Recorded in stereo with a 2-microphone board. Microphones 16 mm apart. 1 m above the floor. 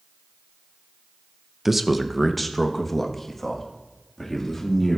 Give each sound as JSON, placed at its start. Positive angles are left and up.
{"t": 1.6, "sound": "a man speaking", "side_deg": -15, "distance_m": 0.5}